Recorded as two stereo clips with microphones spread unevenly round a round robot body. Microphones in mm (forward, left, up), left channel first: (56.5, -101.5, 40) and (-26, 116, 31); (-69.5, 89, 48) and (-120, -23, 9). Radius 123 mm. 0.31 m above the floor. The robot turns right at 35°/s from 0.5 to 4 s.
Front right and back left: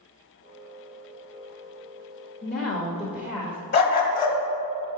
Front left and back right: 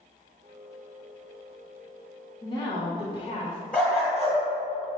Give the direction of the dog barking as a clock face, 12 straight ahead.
1 o'clock.